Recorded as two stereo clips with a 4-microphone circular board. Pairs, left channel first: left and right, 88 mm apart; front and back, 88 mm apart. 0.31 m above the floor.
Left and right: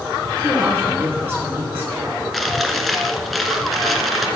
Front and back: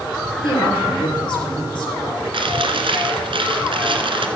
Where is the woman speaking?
25° right, 6 m.